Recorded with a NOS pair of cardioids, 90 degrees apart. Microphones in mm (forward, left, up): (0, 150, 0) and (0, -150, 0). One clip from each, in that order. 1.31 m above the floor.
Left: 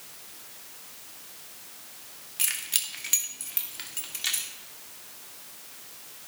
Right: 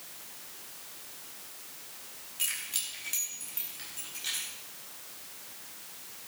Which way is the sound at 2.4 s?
50° left.